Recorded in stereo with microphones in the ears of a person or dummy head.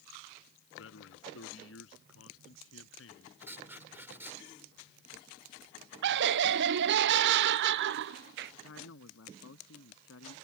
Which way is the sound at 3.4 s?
10° right (ahead or behind).